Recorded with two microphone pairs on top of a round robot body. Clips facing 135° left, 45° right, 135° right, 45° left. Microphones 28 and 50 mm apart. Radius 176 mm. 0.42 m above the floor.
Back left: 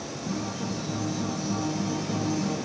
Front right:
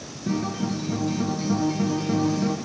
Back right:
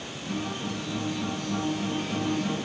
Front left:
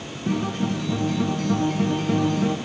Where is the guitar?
5° left, 1.6 m.